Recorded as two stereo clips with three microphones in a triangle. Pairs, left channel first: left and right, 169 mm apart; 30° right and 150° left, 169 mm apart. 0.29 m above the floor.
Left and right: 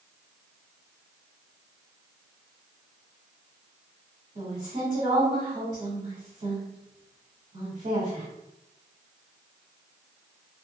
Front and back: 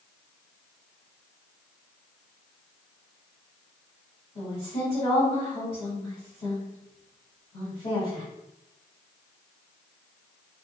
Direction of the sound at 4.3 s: 80° right.